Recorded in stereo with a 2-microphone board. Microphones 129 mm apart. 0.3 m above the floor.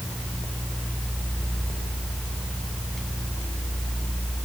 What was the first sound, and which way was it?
Only background noise.